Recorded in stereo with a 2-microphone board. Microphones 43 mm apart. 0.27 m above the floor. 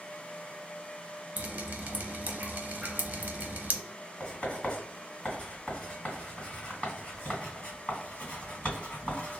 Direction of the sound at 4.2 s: 30° left (ahead or behind).